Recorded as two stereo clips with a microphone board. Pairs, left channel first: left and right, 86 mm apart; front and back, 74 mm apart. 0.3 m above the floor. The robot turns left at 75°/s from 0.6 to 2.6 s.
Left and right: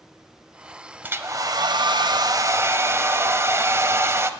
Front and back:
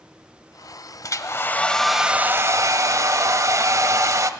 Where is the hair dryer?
25° right, 0.5 m; by 4.3 s 145° right, 0.5 m.